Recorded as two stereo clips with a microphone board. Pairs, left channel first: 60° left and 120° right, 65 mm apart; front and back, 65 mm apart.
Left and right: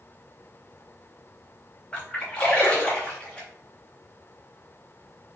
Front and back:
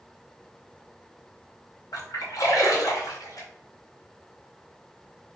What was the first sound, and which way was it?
A splash, 15° right.